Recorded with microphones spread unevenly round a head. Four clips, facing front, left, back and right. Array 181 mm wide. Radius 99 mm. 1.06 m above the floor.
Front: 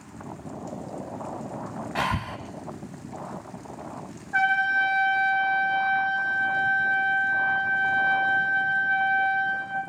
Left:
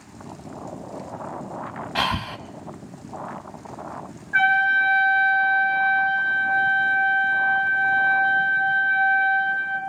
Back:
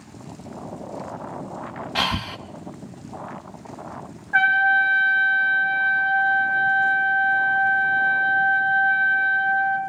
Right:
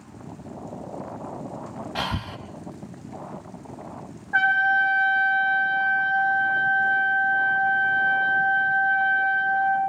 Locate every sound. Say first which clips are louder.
1.9 s breathing: left 6 dB, back 2 dB; 135° right, 1.0 m
4.3 s a trumpet: left 1 dB, back 5 dB; 105° right, 3 m